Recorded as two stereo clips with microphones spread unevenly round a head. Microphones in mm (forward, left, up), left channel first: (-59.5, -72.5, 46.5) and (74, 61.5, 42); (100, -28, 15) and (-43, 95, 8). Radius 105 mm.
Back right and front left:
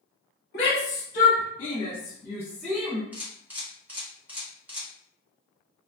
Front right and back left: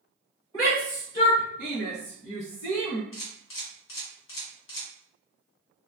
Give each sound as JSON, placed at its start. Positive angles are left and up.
{"t": 0.5, "sound": "a shout", "azimuth_deg": -110, "distance_m": 1.6}
{"t": 3.1, "sound": "a camera shutter", "azimuth_deg": -35, "distance_m": 1.1}